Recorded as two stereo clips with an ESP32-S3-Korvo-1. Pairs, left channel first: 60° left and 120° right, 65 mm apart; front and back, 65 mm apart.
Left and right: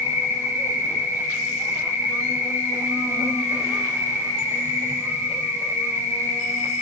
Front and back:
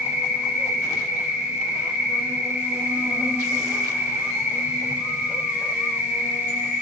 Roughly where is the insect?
Behind right.